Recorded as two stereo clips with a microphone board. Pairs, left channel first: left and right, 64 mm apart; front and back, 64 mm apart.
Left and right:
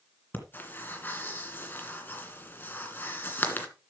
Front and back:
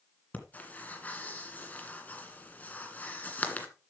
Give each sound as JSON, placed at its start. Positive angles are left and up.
{"t": 0.3, "sound": "breathing", "azimuth_deg": 50, "distance_m": 2.0}